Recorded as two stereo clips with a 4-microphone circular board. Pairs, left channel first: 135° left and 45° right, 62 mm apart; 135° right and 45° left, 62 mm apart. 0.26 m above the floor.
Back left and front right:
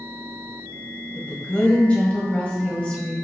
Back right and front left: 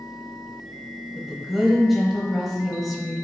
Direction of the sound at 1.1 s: 125° left.